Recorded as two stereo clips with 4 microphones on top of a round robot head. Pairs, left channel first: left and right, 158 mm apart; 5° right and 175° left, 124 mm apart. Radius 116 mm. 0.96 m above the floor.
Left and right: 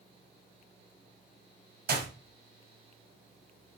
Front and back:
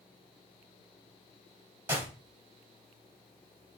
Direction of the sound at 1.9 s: 105° right.